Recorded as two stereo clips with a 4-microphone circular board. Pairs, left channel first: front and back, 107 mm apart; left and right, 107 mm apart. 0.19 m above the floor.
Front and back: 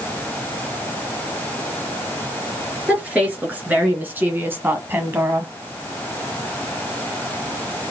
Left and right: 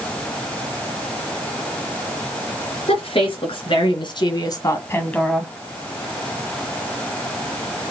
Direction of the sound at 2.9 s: 105° left.